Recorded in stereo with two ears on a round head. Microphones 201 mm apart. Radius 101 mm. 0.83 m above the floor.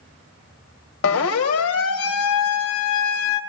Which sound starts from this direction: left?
A siren, at 1.0 s.